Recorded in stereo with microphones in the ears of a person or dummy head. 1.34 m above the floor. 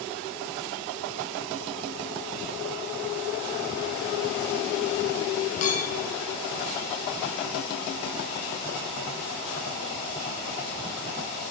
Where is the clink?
45° left (ahead or behind), 1.9 m.